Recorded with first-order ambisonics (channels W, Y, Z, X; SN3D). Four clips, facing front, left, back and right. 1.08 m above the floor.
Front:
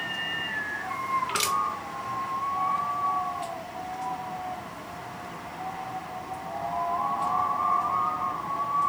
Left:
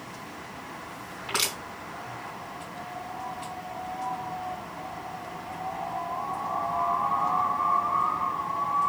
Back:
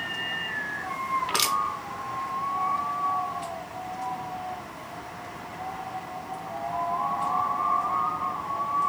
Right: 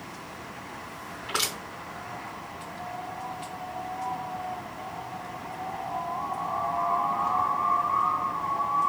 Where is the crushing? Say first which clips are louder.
Left 1 dB, back 2 dB; 165° left, 2.5 m.